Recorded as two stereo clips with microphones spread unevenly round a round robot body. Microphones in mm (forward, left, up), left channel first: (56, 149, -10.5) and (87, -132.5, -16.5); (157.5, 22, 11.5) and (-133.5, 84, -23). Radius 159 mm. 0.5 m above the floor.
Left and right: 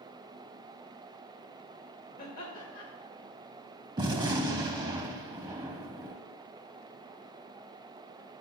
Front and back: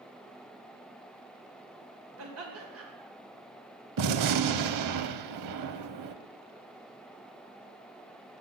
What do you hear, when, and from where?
2.2 s laughter: 155° left, 2.5 m
4.0 s a gunshot: 160° right, 0.5 m